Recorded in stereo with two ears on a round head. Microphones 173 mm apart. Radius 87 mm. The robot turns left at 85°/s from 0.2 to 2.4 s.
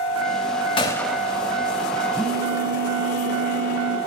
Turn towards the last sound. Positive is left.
turn(degrees=10)  # may be behind; listen again after turning